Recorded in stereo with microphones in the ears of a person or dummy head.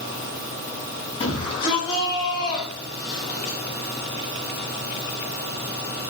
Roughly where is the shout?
Left.